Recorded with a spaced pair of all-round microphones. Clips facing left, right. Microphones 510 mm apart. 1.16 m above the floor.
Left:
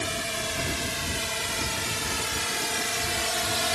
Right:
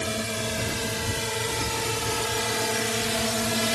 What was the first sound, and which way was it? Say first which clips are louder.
A drone: right 4 dB; 70° right (ahead or behind).